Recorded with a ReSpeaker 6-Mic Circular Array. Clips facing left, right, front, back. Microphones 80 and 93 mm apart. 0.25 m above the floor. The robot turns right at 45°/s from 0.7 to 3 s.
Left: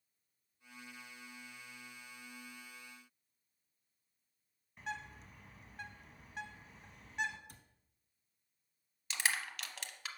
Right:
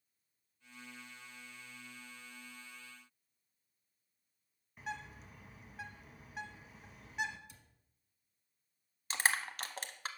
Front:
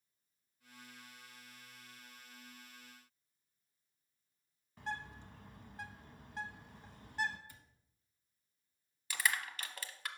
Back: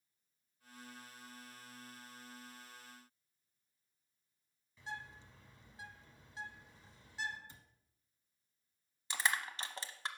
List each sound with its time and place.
4.8 s a bird: 5° right, 0.9 m
7.5 s a cupboard door: 115° left, 0.9 m
9.1 s crushing: 125° right, 0.7 m